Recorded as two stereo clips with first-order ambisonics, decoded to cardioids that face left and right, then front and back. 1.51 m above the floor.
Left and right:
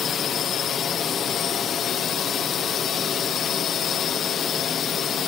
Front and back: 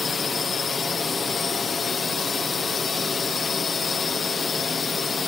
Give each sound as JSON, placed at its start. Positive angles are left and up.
{"t": 0.0, "sound": "a drone", "azimuth_deg": 55}